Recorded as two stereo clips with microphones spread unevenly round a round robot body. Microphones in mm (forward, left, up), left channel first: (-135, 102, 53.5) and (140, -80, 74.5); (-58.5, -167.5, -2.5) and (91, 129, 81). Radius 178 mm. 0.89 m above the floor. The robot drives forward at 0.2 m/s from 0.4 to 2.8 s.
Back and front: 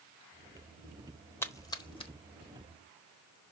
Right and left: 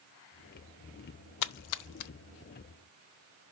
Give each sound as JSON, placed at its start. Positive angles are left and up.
{"t": 1.4, "sound": "a splash", "azimuth_deg": -130, "distance_m": 0.5}